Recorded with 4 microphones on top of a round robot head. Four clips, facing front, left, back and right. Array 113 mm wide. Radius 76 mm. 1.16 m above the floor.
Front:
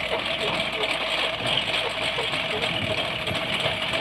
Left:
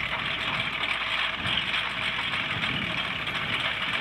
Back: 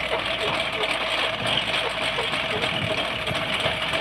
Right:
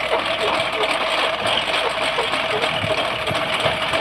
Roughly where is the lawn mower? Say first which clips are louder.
Right 13 dB, back 1 dB; right.